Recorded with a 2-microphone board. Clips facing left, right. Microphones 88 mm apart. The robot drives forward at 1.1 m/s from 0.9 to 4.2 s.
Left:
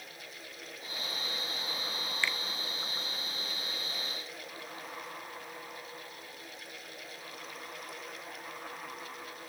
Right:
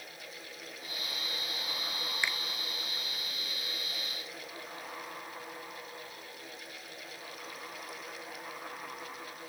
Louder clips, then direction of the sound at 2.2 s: Left 1 dB; 15° right (ahead or behind).